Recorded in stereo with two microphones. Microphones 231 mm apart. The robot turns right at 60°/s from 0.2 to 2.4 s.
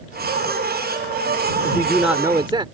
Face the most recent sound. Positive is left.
turn(degrees=-155)